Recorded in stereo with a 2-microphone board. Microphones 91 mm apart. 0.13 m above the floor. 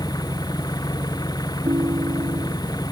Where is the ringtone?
50° right (ahead or behind).